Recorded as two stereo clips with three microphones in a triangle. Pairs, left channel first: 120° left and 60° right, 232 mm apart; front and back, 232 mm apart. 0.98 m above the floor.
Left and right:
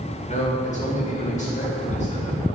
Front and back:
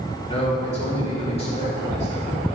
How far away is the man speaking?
About 2 m.